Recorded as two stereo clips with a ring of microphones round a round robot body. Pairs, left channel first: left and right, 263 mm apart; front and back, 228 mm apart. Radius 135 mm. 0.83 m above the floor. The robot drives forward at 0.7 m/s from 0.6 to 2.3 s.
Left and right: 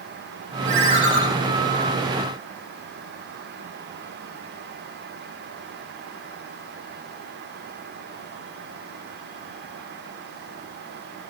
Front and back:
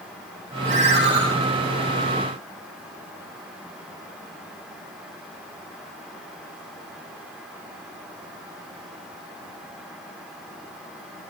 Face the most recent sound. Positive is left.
turn(degrees=-160)